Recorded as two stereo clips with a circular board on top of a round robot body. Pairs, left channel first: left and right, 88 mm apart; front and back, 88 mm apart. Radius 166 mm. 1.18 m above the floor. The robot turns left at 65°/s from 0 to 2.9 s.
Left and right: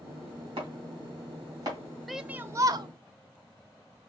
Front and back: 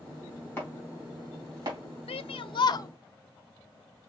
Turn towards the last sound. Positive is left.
turn(degrees=-55)